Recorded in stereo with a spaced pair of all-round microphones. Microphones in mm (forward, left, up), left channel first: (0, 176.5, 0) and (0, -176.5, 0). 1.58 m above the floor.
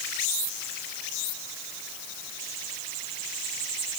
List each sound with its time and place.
Only background noise.